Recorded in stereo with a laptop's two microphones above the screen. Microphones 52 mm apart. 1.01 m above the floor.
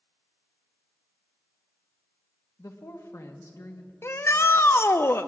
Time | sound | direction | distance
2.6 | a woman speaking | 75° left (ahead or behind) | 1.3 m
4.0 | a shout | 55° left (ahead or behind) | 0.7 m